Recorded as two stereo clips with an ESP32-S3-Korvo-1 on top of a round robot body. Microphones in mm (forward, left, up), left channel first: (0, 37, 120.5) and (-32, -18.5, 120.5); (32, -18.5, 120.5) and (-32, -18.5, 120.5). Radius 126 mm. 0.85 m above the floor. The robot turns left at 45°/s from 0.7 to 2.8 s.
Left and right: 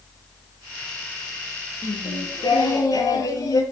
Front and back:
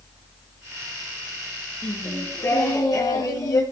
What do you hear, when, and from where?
1.8 s singing: 70° left, 4 m; by 3.6 s 25° left, 4 m